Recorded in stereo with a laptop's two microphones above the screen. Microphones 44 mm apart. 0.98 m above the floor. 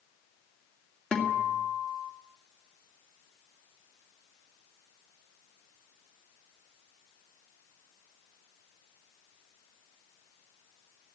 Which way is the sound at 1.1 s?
15° left (ahead or behind).